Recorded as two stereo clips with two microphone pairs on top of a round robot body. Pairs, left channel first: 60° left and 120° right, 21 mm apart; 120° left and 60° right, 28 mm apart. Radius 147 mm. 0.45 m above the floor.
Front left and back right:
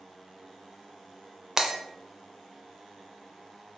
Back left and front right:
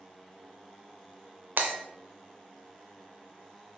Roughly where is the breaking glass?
Ahead right.